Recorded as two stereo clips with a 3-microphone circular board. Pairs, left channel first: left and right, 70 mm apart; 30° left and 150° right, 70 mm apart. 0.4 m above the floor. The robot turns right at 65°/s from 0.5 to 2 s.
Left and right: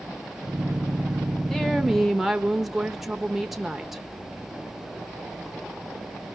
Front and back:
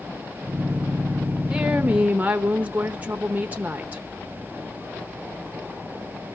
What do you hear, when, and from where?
1.5 s a woman speaking: 155° left, 0.8 m; by 4.0 s 175° right, 0.8 m